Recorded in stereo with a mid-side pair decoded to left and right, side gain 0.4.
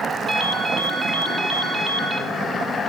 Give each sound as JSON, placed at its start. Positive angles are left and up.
{"t": 0.3, "sound": "a ringtone", "azimuth_deg": -55, "distance_m": 3.0}